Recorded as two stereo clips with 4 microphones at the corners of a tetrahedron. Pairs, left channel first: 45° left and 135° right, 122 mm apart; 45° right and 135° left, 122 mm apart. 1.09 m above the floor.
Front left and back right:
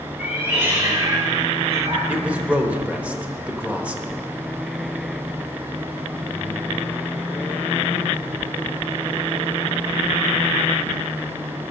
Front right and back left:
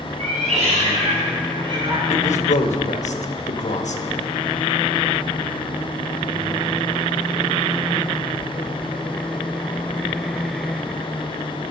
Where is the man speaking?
55° right, 1.0 m.